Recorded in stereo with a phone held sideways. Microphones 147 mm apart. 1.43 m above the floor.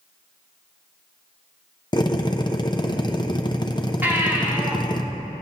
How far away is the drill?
About 0.7 m.